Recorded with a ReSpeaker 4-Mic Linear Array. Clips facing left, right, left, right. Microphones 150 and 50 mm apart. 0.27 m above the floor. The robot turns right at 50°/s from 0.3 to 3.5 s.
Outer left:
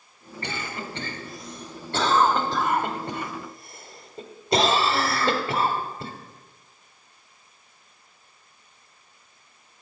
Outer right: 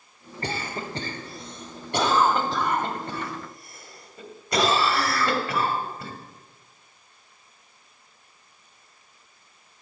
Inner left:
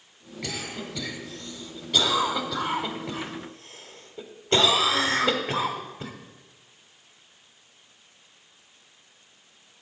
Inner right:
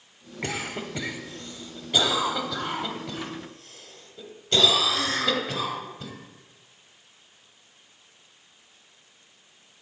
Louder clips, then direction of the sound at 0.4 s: Outer right 2 dB, inner right 3 dB; 35° right (ahead or behind).